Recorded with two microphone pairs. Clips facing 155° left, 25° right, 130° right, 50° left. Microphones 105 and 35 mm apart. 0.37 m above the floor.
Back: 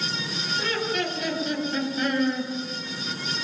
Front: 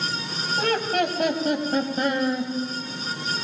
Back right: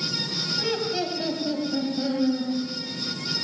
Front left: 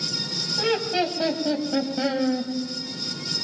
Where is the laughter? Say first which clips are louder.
Front 5 dB, front left 5 dB; 10° right, 3 m; by 2.5 s 35° left, 2.5 m.